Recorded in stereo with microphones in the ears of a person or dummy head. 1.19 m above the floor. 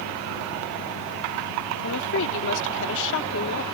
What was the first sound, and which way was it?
A woman speaking, 65° left (ahead or behind).